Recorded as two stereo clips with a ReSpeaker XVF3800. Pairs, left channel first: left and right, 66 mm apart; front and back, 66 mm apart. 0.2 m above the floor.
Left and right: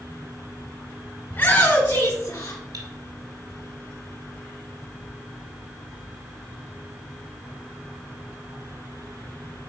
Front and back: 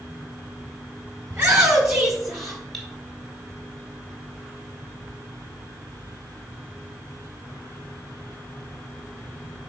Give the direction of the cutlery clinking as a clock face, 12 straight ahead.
3 o'clock.